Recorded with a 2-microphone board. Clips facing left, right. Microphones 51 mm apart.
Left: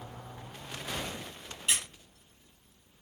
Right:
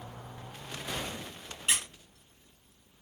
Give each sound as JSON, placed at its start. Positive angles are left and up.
{"t": 1.7, "sound": "a squeak", "side_deg": -30, "distance_m": 0.9}